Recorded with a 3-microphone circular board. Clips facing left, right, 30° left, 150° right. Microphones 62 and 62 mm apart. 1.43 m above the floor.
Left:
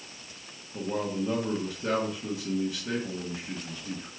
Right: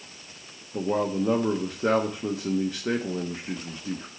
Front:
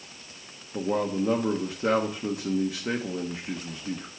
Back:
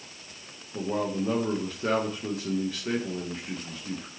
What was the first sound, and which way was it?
A man speaking, 45° right.